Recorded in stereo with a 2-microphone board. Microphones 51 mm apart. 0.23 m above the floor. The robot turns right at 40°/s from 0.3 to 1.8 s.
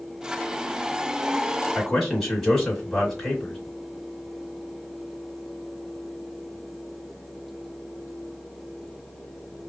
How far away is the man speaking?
About 1.7 m.